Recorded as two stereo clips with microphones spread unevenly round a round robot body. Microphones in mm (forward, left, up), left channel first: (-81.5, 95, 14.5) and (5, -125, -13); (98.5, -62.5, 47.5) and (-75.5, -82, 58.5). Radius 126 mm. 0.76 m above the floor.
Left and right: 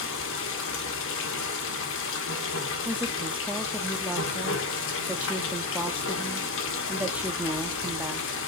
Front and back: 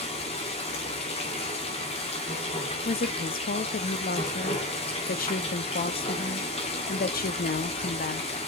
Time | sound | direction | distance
0.0 | running water | 65° left | 1.8 m
2.9 | a woman speaking | 10° left | 1.0 m